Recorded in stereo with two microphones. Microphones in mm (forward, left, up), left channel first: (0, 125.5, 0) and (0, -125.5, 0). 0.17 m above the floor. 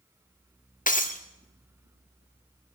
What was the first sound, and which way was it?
Breaking glass, 30° left (ahead or behind).